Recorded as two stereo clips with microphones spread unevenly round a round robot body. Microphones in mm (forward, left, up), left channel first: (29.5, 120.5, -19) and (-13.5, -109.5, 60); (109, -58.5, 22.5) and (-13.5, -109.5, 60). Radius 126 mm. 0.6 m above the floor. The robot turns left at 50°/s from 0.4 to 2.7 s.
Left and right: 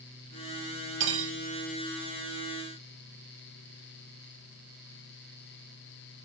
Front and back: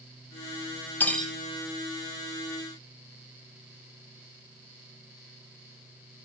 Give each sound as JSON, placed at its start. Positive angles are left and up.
{"t": 1.0, "sound": "cutlery clinking", "azimuth_deg": -50, "distance_m": 0.8}